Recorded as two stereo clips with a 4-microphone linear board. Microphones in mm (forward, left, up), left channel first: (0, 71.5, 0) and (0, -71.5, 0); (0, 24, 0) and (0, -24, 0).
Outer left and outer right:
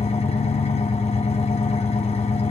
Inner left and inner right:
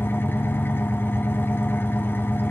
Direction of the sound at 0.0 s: 45° left (ahead or behind).